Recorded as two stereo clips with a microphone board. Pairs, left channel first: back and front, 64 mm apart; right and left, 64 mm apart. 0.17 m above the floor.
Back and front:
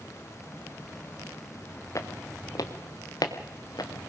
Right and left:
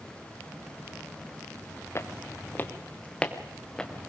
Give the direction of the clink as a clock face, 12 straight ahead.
I don't hear a clink.